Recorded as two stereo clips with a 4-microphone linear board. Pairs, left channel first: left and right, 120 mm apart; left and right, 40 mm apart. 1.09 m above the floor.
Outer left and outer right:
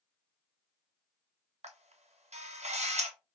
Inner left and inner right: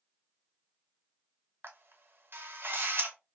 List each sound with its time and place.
1.6 s a camera shutter: 65° right (ahead or behind), 0.9 m